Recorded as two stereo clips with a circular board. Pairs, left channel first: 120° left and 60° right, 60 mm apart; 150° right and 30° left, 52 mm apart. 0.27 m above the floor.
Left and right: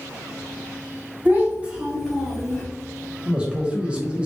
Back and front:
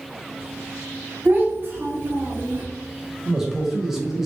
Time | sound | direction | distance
1.2 | a child speaking | 5° right | 1.5 m
3.2 | a man speaking | 35° right | 0.9 m